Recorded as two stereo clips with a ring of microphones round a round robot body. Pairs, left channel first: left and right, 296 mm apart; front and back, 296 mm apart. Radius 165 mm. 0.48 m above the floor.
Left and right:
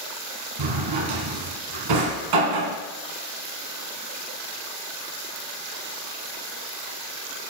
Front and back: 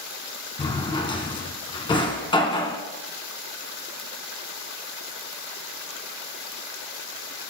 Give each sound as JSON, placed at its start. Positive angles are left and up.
{"t": 0.6, "sound": "a drawer", "azimuth_deg": -75, "distance_m": 1.9}